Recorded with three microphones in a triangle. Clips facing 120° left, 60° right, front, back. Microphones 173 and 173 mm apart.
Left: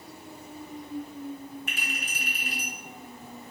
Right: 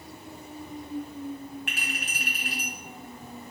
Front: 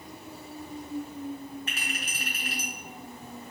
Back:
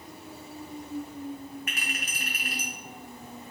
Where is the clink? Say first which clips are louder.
Right 1 dB, even; 60° right, 2.5 m.